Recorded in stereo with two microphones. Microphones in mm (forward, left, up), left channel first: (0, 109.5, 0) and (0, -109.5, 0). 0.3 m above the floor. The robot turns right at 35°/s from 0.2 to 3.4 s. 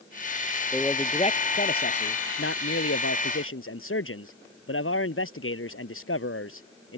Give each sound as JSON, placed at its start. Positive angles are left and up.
{"t": 0.7, "sound": "a man speaking", "azimuth_deg": 10}